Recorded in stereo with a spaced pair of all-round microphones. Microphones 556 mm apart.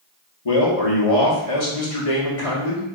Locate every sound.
0.5 s a man speaking: 80° left, 1.5 m